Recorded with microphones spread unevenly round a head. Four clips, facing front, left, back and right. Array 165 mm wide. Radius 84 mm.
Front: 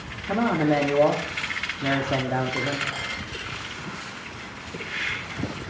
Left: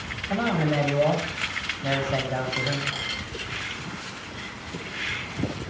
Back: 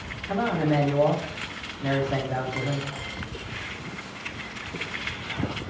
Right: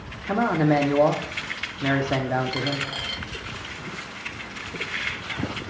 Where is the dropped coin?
40° right, 1.0 m.